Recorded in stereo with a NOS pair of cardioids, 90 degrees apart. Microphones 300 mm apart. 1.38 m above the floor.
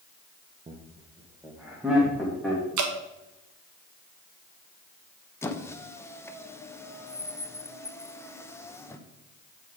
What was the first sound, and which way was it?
Laughter, 20° right.